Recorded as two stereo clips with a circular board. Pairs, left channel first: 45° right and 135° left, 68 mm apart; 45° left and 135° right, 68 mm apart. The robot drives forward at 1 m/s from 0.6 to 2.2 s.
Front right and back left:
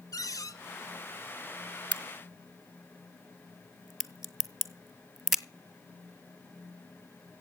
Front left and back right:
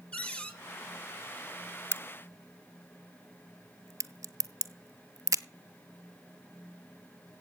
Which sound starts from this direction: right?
A crack, at 1.9 s.